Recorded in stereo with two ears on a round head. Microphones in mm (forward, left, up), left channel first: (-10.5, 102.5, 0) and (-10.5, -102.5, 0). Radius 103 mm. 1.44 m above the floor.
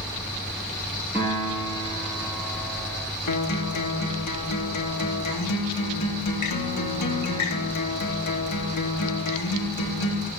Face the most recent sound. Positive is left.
turn(degrees=80)